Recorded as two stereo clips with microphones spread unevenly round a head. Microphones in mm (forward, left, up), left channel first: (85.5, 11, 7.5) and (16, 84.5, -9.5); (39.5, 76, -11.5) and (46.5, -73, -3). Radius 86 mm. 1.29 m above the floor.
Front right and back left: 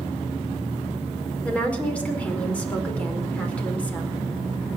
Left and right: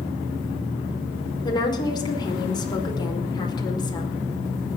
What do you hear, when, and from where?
1.4 s a woman speaking: 30° left, 4.5 m